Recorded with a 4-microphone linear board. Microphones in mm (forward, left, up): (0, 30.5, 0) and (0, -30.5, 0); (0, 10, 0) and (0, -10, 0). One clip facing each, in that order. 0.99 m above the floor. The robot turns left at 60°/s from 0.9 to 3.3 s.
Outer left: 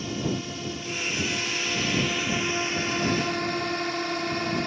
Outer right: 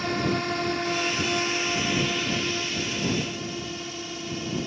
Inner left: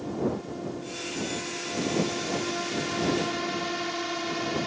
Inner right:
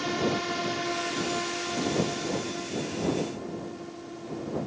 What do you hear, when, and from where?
0.0 s a drone: 105° right; by 4.7 s 110° left